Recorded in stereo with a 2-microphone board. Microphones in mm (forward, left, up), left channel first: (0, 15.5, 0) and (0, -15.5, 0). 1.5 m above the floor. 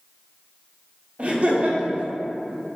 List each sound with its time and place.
1.2 s laughter: 40° right (ahead or behind), 0.7 m